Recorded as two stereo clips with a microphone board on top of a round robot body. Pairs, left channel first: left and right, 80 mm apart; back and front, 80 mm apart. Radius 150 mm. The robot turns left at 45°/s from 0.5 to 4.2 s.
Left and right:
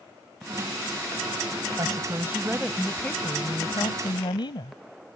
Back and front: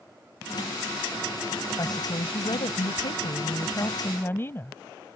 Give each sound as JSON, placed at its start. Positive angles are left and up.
{"t": 1.8, "sound": "a woman speaking", "azimuth_deg": -135}